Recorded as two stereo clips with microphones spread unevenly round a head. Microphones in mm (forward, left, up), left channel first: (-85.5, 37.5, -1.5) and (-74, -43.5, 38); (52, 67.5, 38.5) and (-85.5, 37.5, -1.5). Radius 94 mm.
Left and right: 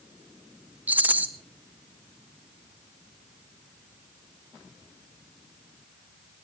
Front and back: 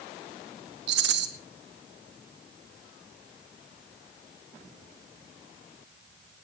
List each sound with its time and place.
0.9 s a rattle: 140° right, 1.8 m